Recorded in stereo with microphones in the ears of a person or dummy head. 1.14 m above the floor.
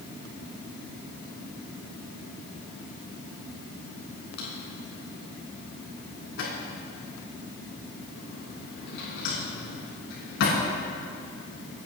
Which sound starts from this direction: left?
A drawer, at 4.4 s.